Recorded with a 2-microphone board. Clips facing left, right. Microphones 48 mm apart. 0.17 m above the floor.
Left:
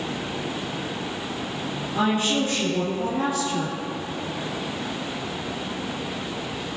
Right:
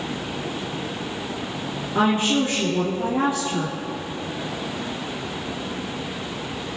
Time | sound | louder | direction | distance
1.9 | a woman speaking | right 3 dB | 45° right (ahead or behind) | 2.5 m